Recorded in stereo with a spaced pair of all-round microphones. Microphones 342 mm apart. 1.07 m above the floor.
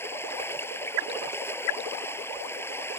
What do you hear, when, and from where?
0.0 s running water: 5° left (ahead or behind)